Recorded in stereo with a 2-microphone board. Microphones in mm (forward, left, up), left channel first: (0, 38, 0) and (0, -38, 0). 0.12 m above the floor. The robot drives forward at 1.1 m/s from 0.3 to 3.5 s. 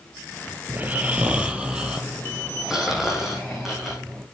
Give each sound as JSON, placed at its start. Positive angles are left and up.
{"t": 0.7, "sound": "snoring", "side_deg": -25, "distance_m": 1.0}